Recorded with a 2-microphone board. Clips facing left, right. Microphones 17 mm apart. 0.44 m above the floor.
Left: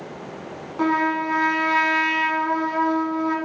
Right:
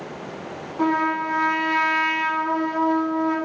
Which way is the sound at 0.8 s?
25° left (ahead or behind).